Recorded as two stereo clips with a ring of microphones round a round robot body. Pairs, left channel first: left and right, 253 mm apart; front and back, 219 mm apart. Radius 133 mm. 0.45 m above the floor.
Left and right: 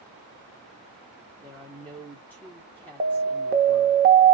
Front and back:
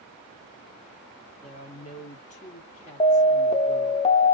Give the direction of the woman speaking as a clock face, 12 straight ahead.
12 o'clock.